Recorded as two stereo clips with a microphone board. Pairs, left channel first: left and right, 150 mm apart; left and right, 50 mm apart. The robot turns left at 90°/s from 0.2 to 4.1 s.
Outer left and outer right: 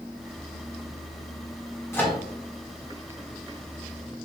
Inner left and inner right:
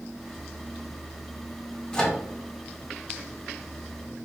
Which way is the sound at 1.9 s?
15° left (ahead or behind).